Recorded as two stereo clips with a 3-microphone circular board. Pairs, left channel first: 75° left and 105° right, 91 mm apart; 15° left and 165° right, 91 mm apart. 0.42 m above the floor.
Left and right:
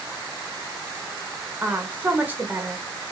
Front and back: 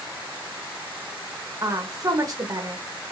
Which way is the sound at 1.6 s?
165° right.